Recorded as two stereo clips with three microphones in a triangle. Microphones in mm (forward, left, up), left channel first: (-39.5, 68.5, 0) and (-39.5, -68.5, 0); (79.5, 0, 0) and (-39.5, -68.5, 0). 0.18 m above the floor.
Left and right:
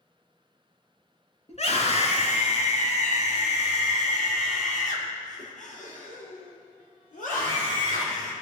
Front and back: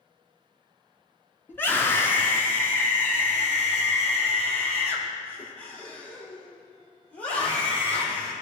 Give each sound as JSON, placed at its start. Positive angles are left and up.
{"t": 1.5, "sound": "a scream", "azimuth_deg": 100, "distance_m": 2.5}